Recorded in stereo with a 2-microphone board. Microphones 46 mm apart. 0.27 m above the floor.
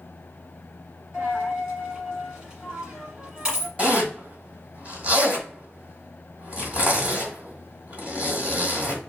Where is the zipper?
30° right (ahead or behind), 1.6 m.